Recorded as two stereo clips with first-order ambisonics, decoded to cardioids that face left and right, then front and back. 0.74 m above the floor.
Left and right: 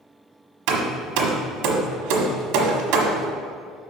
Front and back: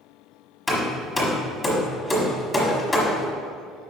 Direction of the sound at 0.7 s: 80° right.